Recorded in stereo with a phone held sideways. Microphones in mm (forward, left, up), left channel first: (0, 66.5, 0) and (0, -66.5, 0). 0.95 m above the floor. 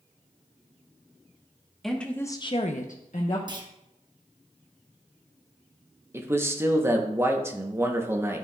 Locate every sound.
1.8 s a woman speaking: centre (ahead or behind), 1.3 m; by 3.4 s 55° left (ahead or behind), 1.2 m
3.5 s a clunk: 30° right (ahead or behind), 0.9 m
6.1 s a man speaking: 20° right (ahead or behind), 0.9 m